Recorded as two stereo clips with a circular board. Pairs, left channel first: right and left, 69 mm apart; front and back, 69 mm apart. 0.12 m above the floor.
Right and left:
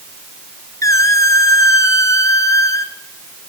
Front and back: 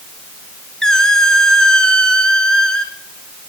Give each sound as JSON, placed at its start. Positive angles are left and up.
{"t": 0.8, "sound": "a squeak", "azimuth_deg": -80, "distance_m": 0.8}